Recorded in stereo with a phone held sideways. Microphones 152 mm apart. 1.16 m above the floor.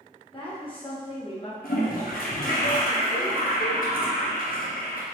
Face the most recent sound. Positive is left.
turn(degrees=70)  # may be behind; listen again after turning